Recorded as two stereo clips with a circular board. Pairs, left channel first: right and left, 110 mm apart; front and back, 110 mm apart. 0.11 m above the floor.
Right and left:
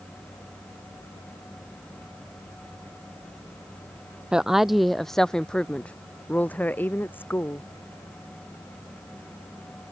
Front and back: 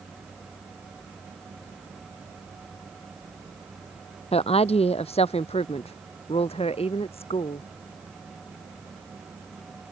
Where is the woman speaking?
5° left; by 7.7 s 20° right.